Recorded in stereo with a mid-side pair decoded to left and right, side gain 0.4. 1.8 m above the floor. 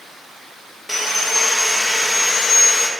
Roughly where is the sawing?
Ahead.